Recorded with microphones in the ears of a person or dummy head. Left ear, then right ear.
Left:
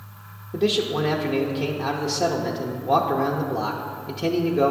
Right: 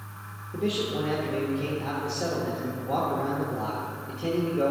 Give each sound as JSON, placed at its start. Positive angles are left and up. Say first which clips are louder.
{"t": 0.5, "sound": "a man speaking", "louder": "left 6 dB", "side_deg": 70, "distance_m": 0.8}